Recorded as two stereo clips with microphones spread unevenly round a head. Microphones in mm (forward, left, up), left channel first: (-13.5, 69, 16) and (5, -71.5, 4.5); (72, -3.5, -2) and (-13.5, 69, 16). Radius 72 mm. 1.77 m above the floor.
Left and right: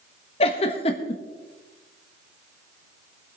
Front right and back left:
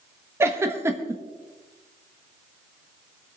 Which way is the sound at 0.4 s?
100° left.